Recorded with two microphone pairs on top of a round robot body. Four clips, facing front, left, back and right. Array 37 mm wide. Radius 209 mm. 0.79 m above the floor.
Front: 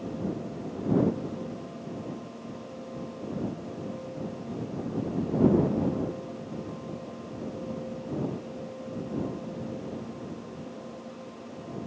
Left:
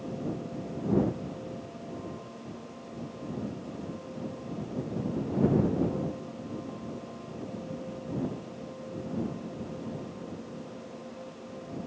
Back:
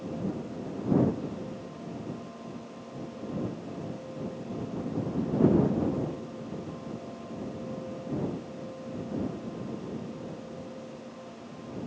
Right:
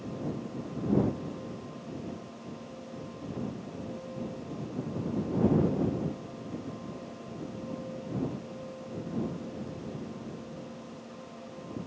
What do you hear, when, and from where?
Only background noise.